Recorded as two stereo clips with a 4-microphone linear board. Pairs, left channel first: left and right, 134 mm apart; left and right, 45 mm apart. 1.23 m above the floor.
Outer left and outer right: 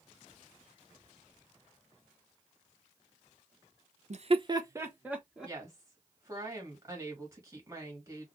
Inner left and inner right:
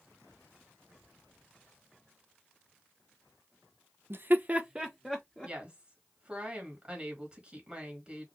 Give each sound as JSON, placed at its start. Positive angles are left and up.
{"t": 4.1, "sound": "laughter", "side_deg": -60, "distance_m": 0.6}
{"t": 5.4, "sound": "a woman speaking", "side_deg": -20, "distance_m": 2.5}